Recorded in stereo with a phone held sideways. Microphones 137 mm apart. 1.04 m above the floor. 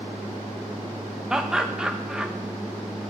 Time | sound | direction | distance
1.3 | laughter | 5° right (ahead or behind) | 0.9 m